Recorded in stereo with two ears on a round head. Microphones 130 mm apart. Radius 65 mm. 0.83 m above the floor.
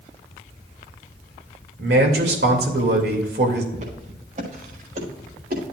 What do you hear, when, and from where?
1.8 s a man speaking: 80° right, 2.5 m
3.7 s footsteps: 55° right (ahead or behind), 5 m; by 5.6 s 65° right (ahead or behind), 5.5 m